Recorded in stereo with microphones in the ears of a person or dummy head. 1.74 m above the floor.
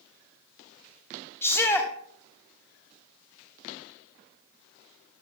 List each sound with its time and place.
1.4 s a shout: 10° left (ahead or behind), 1.2 m